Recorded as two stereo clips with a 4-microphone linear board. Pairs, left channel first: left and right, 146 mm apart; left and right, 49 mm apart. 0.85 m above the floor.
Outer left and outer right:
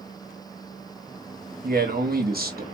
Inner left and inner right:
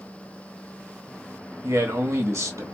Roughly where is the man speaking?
Right.